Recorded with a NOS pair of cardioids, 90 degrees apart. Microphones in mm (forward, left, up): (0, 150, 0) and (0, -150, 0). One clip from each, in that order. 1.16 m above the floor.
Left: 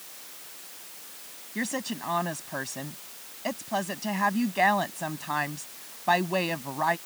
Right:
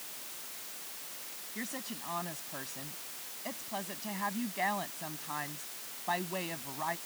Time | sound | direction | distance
1.6 | a woman speaking | 70° left | ?